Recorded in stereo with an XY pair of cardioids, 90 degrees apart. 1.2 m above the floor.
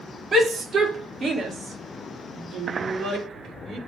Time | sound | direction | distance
0.3 | a shout | 50° right | 2.5 m